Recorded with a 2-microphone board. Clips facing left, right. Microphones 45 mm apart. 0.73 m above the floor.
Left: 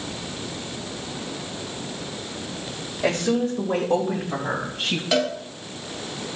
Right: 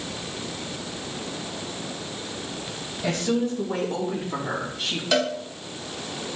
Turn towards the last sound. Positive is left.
turn(degrees=10)  # may be behind; listen again after turning